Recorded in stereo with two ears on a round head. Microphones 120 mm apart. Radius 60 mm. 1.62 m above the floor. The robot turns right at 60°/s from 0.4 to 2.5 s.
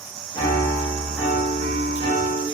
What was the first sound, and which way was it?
A piano, 155° left.